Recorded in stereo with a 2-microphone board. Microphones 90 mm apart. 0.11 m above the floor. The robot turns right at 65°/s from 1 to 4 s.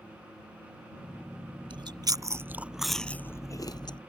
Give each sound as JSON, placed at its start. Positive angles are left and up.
{"t": 1.7, "sound": "chewing", "azimuth_deg": -75}